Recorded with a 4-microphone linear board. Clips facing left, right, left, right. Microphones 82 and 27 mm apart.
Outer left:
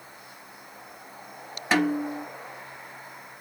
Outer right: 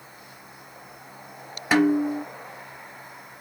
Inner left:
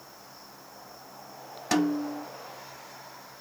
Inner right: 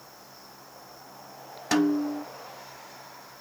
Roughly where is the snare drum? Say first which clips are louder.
Outer right 4 dB, inner right 2 dB; centre.